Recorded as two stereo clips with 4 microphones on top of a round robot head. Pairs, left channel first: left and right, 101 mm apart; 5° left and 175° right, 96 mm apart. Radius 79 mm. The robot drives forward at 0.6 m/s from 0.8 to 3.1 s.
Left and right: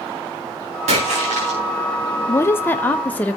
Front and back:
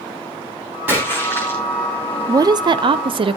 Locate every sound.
0.9 s a splash: 100° right, 5.5 m; by 1.6 s 105° right, 5.5 m
2.3 s a woman speaking: 140° left, 0.5 m; by 3.4 s 165° left, 0.9 m